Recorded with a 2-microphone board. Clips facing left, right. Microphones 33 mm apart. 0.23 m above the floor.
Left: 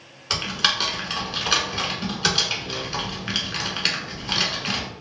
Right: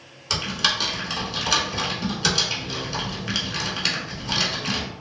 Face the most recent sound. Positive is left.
turn(degrees=15)  # may be behind; listen again after turning